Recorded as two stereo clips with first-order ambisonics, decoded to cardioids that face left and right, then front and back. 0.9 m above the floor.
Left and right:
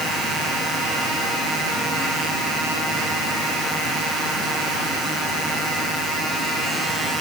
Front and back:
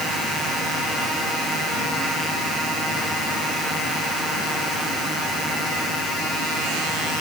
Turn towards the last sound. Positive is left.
No sound to turn to.